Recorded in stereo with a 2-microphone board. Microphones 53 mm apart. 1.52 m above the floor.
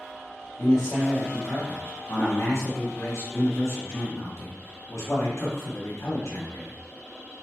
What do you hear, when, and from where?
0.6 s a man speaking: 70° left (ahead or behind), 1.6 m